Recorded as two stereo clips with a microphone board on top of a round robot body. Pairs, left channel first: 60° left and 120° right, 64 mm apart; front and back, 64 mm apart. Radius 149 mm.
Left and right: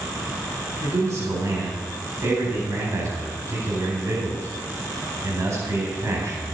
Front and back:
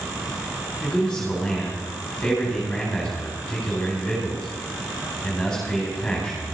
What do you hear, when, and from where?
0.8 s a man speaking: 80° right, 4.5 m